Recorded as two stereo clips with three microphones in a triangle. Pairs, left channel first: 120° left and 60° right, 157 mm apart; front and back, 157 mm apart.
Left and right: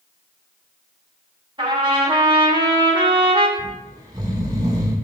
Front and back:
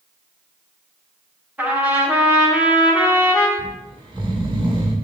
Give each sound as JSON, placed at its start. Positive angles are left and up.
{"t": 1.6, "sound": "a trumpet", "azimuth_deg": -105, "distance_m": 1.1}
{"t": 3.6, "sound": "snoring", "azimuth_deg": -120, "distance_m": 1.6}